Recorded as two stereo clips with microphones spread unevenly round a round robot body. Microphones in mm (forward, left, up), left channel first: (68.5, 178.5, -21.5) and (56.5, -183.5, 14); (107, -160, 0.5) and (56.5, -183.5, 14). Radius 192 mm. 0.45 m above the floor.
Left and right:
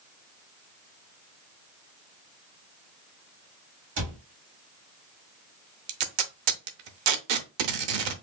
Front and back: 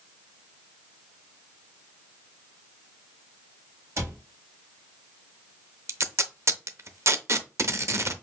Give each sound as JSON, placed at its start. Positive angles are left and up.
{"t": 4.0, "sound": "a cupboard door", "azimuth_deg": -130, "distance_m": 1.7}
{"t": 5.9, "sound": "tape being pulled", "azimuth_deg": -105, "distance_m": 0.7}